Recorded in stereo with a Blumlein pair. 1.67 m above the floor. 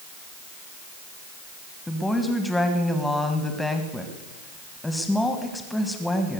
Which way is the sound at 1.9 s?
5° left.